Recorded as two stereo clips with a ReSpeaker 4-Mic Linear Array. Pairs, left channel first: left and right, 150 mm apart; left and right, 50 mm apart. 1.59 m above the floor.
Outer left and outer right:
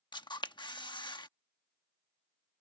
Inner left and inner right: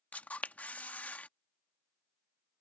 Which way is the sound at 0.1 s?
30° left (ahead or behind).